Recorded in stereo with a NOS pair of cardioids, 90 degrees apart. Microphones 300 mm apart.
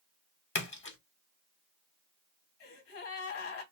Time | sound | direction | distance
0.6 | a splash | 40° left | 1.3 m
2.6 | a gasp | 45° left | 1.5 m